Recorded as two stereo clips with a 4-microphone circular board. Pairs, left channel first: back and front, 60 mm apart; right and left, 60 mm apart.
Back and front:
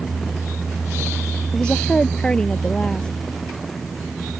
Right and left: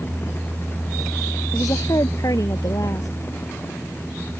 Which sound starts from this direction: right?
A woman speaking, at 1.5 s.